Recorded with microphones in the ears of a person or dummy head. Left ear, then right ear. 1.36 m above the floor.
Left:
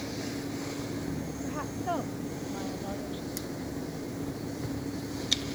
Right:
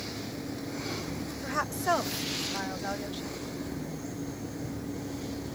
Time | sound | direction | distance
1.4 | a woman speaking | 50° right (ahead or behind) | ?